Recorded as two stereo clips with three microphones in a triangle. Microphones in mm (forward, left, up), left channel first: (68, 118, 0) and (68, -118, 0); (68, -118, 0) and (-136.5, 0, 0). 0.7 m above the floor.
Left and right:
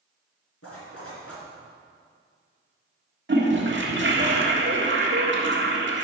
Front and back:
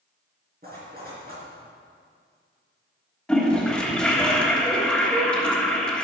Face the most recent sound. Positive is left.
turn(degrees=-115)